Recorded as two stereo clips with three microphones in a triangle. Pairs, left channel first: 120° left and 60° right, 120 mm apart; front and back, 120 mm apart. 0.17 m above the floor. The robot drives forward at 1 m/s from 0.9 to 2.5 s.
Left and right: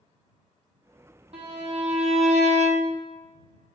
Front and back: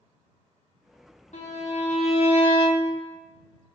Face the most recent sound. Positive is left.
turn(degrees=-45)